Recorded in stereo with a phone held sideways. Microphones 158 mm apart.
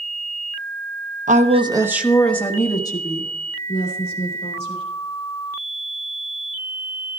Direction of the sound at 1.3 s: 50° right (ahead or behind).